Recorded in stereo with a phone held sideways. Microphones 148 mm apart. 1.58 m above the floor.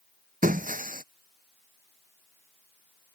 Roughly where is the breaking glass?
Right.